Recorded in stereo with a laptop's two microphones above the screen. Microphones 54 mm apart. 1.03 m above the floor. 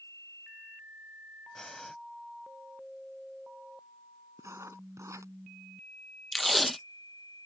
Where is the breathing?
10° left (ahead or behind).